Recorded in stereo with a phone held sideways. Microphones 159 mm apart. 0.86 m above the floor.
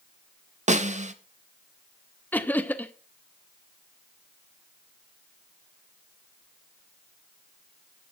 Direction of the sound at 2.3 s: 10° left (ahead or behind).